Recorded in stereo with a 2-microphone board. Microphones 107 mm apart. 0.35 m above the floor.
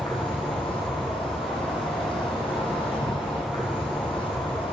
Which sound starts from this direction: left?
An insect, at 0.0 s.